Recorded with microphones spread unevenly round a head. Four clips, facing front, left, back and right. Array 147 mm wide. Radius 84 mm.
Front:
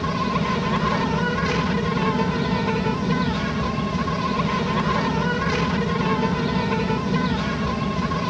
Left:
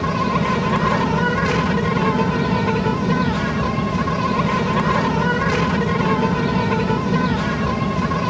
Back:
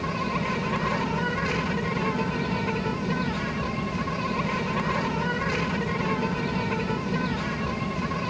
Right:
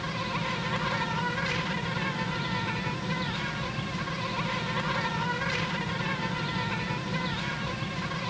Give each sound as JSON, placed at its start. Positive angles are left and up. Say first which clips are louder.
{"t": 0.0, "sound": "an insect", "louder": "left 13 dB, front 5 dB", "azimuth_deg": 75}